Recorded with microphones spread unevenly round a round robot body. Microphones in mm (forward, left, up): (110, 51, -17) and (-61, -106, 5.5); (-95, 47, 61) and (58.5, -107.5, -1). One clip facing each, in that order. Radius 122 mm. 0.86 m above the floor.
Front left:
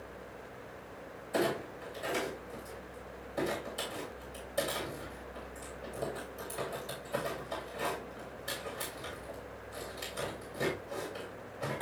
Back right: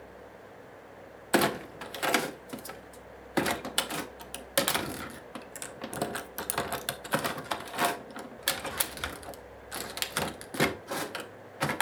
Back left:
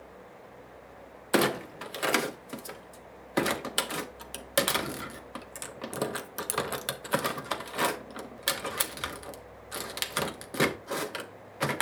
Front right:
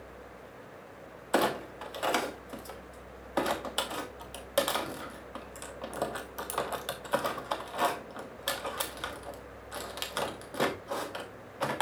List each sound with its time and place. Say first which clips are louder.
1.3 s a clunk: back right 5 dB, back left 3 dB; 165° right, 0.6 m